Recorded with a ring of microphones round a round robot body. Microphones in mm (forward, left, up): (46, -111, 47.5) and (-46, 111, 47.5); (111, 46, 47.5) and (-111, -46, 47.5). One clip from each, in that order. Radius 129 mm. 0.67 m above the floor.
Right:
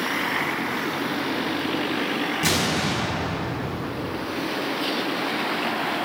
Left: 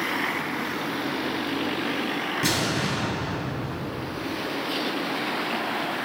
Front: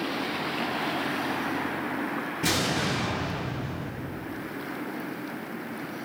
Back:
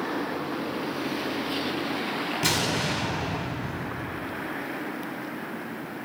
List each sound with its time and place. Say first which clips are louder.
2.4 s an explosion: right 2 dB, even; 160° right, 3 m